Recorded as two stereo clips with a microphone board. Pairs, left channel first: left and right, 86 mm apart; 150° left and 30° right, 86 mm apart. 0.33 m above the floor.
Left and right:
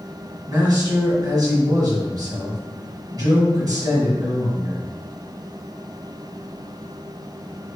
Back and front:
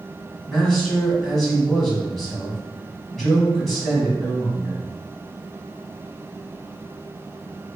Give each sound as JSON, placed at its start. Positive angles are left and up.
{"t": 0.5, "sound": "a man speaking", "azimuth_deg": -125, "distance_m": 2.0}